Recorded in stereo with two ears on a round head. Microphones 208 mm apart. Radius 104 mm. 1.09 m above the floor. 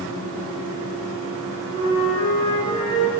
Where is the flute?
20° left (ahead or behind), 4.5 m.